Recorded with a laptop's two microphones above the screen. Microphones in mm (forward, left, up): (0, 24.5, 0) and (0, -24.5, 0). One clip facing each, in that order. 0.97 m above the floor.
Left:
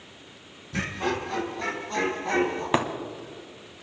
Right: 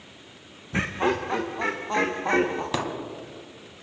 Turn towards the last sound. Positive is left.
turn(degrees=30)  # may be behind; listen again after turning